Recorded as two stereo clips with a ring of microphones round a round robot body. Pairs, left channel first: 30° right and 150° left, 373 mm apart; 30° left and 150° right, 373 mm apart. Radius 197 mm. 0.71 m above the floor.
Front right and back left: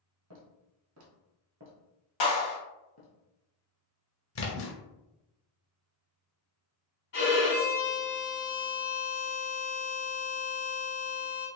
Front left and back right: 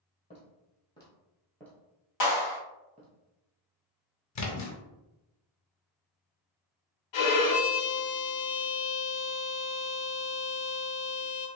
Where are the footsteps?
105° left, 1.5 m; by 3.1 s 85° right, 0.8 m.